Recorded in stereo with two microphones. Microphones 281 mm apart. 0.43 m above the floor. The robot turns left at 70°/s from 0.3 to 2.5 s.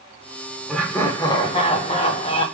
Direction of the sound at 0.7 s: Centre (ahead or behind).